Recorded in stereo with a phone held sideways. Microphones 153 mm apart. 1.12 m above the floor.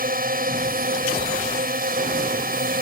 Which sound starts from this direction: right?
A drone, at 0.0 s.